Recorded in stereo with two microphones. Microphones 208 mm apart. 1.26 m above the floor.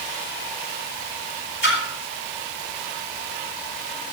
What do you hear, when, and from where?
1.6 s a splash: 70° left (ahead or behind), 5 m